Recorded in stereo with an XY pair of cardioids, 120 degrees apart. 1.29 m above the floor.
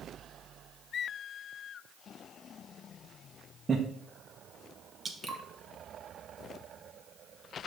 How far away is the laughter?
About 0.9 m.